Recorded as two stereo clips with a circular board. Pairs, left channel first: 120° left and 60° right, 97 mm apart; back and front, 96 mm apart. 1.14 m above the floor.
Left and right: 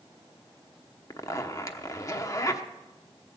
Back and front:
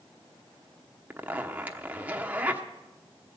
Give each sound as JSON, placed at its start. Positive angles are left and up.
{"t": 1.1, "sound": "a zipper", "azimuth_deg": 70, "distance_m": 1.0}